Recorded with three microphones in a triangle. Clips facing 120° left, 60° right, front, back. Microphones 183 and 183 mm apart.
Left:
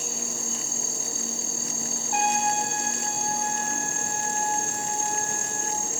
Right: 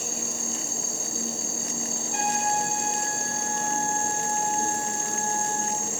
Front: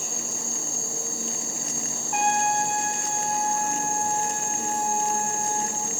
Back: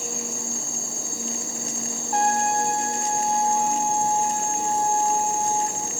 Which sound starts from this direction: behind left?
A trumpet, at 2.1 s.